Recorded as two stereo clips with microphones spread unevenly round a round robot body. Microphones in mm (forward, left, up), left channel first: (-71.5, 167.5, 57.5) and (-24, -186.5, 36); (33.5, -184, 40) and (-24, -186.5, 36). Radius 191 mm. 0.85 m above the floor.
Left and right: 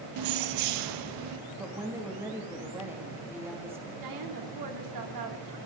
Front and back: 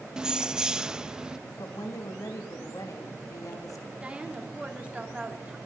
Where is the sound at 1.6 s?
Straight ahead, 1.8 m.